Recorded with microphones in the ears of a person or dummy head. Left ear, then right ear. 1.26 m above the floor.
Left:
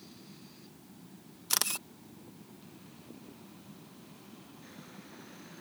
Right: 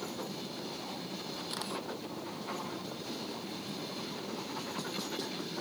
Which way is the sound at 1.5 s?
75° left (ahead or behind).